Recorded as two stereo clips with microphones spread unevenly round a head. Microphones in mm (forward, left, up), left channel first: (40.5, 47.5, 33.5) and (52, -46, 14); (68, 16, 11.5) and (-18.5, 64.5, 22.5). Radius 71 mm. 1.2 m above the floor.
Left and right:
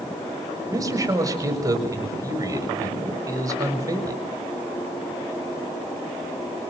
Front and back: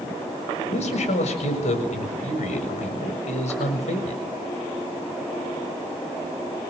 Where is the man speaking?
30° right, 7 m.